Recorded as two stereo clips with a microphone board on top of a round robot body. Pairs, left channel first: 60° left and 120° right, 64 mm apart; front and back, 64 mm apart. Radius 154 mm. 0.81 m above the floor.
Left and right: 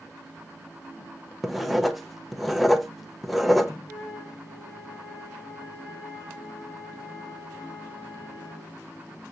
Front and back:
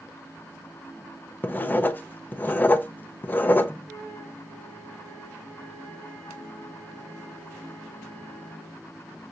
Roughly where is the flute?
Left.